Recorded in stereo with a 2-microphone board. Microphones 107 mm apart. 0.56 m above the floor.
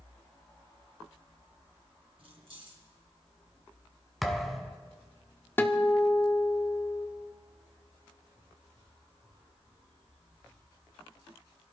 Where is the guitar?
20° left (ahead or behind), 1.0 m.